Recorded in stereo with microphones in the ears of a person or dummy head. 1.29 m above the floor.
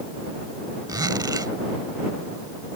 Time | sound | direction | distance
0.9 | a zipper | 25° right (ahead or behind) | ?